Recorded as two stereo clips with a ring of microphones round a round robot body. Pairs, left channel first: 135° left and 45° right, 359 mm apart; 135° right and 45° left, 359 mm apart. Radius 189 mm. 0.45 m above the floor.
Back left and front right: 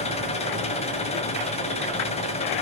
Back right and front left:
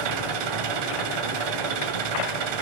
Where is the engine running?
60° left, 2.0 m.